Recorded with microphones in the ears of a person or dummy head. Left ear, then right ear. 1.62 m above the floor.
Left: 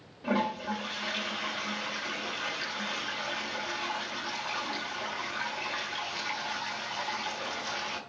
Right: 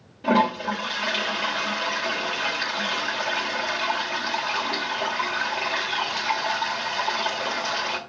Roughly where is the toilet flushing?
Centre.